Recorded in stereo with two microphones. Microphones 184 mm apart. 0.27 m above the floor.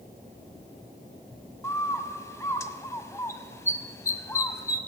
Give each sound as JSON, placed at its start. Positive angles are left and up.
{"t": 1.6, "sound": "a bird", "side_deg": 15, "distance_m": 0.7}